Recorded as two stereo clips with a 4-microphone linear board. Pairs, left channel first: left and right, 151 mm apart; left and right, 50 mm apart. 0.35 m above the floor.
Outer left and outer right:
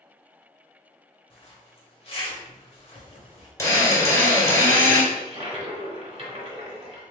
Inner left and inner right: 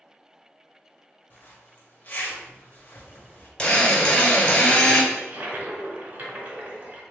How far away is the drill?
About 1.7 m.